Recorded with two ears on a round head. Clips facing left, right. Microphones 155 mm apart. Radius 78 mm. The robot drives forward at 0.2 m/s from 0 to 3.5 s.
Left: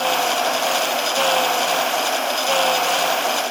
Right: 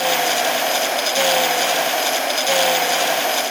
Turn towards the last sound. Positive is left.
No sound to turn to.